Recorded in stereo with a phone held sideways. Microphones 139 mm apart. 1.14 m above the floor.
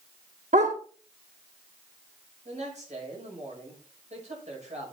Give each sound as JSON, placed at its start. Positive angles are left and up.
{"t": 0.5, "sound": "a dog barking", "side_deg": -60, "distance_m": 1.1}
{"t": 2.5, "sound": "a man speaking", "side_deg": -55, "distance_m": 6.0}